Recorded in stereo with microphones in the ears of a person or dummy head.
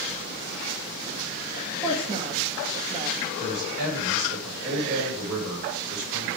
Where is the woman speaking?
20° right (ahead or behind), 1.8 m.